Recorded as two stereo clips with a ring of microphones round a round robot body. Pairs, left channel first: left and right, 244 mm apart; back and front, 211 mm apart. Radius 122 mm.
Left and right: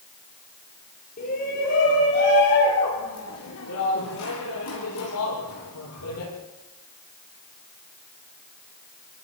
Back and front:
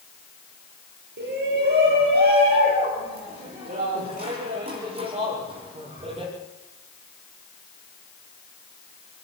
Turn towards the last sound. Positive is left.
turn(degrees=60)